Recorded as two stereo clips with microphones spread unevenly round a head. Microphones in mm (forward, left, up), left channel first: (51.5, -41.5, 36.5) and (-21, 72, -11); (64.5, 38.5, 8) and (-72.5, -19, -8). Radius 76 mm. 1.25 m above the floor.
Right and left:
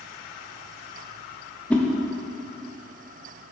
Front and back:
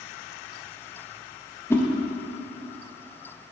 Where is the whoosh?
30° right, 0.5 m.